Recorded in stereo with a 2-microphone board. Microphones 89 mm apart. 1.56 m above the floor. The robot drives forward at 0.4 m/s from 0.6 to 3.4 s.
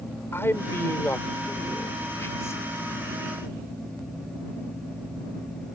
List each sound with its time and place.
0.3 s a man speaking: 25° left (ahead or behind); by 2.6 s 30° left (ahead or behind)